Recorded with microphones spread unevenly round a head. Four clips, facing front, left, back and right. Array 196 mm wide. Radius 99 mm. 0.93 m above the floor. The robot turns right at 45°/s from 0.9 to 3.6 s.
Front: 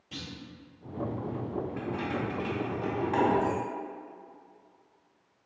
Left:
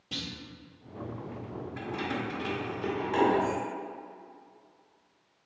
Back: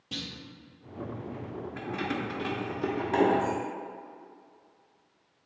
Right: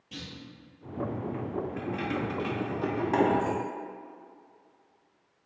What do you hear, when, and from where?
0.1 s a clunk: 135° left, 1.7 m
1.8 s keys jangling: 175° right, 1.4 m; by 3.6 s 95° right, 1.4 m